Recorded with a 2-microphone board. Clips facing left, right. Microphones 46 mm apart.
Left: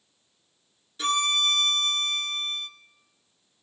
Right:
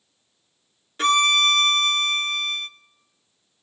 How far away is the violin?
About 0.6 m.